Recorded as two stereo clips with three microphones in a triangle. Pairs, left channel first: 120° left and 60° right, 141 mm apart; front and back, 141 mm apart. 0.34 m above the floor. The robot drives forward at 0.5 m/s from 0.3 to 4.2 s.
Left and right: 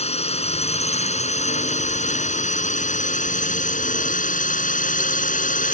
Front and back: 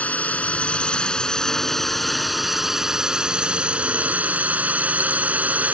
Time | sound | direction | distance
0.0 | a drone | 80° left | ?